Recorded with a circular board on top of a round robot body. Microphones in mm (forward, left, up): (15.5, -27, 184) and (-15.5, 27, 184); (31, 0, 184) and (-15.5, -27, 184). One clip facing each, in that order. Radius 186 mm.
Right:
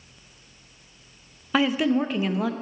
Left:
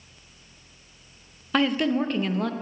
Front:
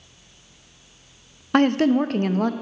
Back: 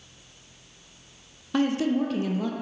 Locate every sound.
1.5 s a woman speaking: 25° left, 0.7 m